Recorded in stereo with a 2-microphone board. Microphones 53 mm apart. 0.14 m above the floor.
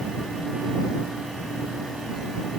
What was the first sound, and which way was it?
Only background noise.